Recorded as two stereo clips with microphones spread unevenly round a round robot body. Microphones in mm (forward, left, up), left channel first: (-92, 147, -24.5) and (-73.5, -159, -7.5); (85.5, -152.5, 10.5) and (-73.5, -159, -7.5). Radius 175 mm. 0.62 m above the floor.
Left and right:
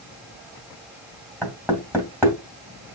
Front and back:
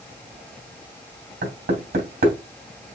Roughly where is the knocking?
Behind.